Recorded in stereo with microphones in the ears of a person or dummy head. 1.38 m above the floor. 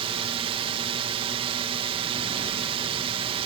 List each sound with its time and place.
0.0 s a drone: 30° right (ahead or behind)